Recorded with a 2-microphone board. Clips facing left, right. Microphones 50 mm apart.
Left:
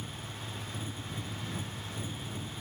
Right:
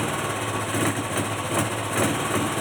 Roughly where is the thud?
No thud in this recording.